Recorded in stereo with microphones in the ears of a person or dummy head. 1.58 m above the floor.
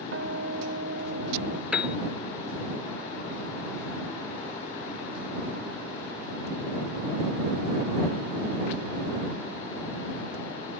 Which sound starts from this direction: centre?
A piano, at 1.7 s.